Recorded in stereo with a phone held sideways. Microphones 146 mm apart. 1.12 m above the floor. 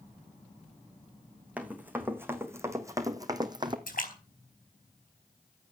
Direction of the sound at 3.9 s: 75° left (ahead or behind).